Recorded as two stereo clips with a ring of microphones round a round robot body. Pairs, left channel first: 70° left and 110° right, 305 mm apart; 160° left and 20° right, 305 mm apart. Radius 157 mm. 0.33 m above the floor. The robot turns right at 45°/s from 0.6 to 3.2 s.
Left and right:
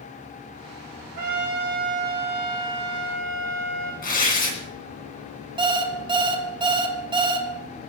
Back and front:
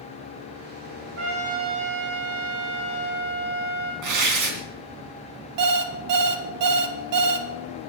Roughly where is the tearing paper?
Ahead.